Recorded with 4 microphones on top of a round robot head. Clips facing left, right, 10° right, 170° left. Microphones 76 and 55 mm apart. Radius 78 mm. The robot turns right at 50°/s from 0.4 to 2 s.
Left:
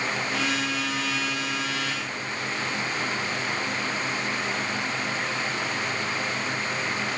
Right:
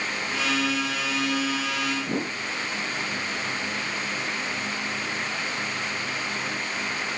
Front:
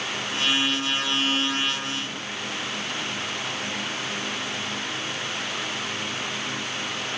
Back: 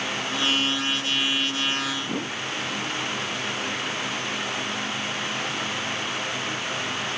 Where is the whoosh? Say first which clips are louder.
Right 4 dB, back 4 dB; 125° right.